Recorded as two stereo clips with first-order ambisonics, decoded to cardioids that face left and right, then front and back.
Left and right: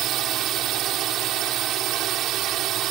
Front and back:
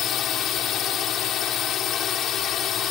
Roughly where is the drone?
Ahead right.